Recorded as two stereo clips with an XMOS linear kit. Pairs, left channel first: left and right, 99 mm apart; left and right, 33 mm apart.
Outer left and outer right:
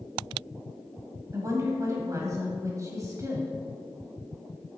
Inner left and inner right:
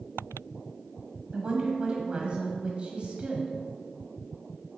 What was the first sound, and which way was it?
A woman speaking, 35° right (ahead or behind).